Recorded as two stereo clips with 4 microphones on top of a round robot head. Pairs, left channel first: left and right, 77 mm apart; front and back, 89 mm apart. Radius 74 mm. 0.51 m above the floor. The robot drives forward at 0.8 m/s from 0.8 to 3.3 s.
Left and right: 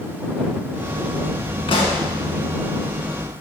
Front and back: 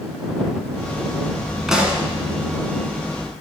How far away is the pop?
About 1.7 m.